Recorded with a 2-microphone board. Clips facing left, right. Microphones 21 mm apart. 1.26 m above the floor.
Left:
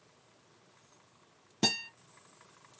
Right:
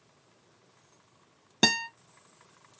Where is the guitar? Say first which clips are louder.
Right 6 dB; 85° right, 0.5 m.